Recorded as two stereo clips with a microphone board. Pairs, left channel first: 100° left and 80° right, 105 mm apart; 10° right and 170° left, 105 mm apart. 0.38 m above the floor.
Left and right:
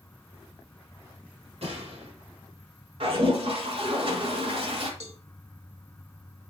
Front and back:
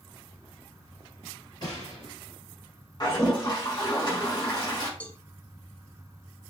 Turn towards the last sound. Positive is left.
turn(degrees=-90)